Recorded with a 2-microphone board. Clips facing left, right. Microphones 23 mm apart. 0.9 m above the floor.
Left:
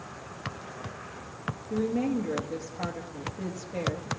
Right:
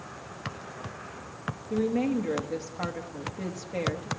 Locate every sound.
1.7 s a woman speaking: 40° right (ahead or behind), 1.4 m